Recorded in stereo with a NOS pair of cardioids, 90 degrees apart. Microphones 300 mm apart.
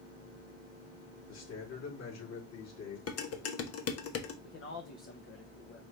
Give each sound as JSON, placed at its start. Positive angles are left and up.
{"t": 1.3, "sound": "a man speaking", "azimuth_deg": 60, "distance_m": 3.0}
{"t": 3.1, "sound": "dishes clattering", "azimuth_deg": 55, "distance_m": 1.0}
{"t": 4.4, "sound": "a man speaking", "azimuth_deg": 45, "distance_m": 0.9}